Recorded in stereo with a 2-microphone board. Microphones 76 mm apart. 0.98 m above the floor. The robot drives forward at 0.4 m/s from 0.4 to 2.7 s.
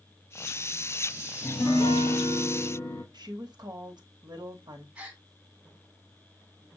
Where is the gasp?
15° right (ahead or behind), 1.7 m.